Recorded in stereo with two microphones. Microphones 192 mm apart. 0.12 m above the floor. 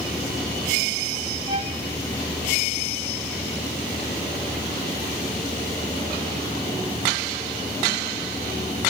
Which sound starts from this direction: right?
A violin, at 1.5 s.